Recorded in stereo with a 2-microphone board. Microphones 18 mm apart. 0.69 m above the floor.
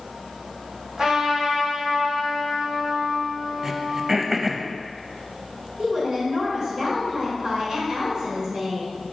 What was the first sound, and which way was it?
A trumpet, 50° right (ahead or behind).